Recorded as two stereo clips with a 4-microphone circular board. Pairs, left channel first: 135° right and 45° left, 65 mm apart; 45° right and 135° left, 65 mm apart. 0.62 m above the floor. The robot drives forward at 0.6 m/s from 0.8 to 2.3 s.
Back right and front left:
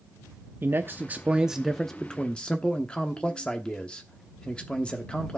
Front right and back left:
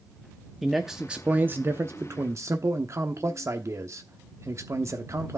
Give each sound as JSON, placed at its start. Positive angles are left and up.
{"t": 0.6, "sound": "a man speaking", "azimuth_deg": 50, "distance_m": 0.7}